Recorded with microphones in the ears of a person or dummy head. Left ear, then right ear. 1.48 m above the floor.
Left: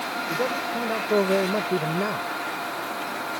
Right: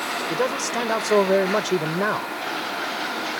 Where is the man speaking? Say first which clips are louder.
Right 2 dB; 70° right (ahead or behind).